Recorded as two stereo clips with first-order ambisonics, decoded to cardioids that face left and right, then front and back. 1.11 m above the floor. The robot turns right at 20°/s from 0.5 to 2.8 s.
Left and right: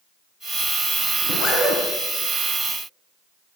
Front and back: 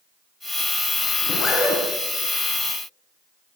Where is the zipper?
75° left, 3 m; by 1.8 s 85° left, 3 m.